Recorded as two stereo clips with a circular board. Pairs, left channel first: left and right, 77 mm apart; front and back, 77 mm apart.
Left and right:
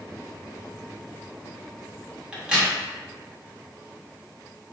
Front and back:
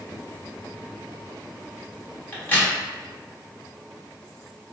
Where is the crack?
30° right, 0.8 m.